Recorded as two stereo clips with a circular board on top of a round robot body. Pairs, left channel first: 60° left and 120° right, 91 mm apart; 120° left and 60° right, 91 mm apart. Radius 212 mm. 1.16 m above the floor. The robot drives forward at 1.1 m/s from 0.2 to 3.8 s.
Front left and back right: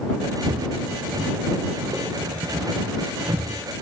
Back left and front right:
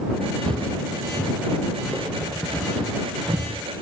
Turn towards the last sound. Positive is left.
turn(degrees=-155)